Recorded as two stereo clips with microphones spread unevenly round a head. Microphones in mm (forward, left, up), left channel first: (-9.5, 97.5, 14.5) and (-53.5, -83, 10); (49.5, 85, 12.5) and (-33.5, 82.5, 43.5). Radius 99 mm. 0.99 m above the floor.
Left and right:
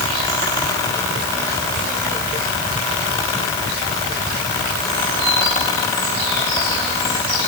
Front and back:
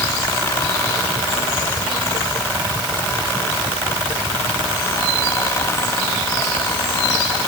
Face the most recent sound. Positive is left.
No sound to turn to.